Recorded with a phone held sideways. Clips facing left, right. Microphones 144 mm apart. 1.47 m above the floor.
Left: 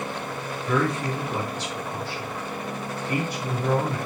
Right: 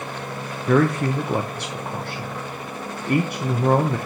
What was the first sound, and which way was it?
A man speaking, 60° right (ahead or behind).